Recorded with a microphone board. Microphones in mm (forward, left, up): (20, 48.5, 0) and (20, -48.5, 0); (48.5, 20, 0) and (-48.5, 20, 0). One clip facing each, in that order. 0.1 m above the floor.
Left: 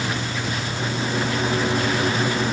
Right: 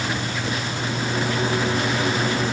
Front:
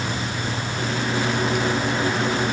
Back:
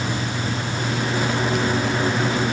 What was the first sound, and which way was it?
Only background noise.